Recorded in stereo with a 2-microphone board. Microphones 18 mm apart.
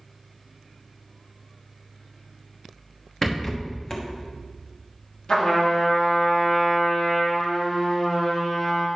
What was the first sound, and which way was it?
A rattle, 30° left (ahead or behind).